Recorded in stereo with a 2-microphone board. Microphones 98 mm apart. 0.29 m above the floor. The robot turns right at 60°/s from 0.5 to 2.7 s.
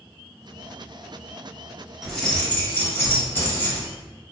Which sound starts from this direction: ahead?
Keys jangling, at 2.0 s.